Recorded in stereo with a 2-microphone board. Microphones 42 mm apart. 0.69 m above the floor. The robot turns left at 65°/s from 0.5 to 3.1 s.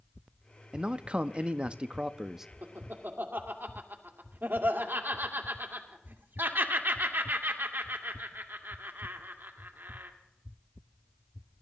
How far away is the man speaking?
About 0.5 m.